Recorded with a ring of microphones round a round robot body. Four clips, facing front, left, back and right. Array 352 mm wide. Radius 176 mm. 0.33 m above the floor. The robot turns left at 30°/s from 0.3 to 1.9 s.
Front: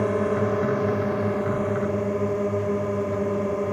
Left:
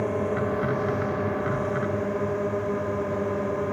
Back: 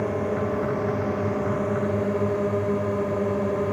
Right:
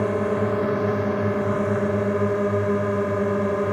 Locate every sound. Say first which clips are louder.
0.0 s a drone: right 4 dB, front 3 dB; 50° right; by 3.7 s 95° right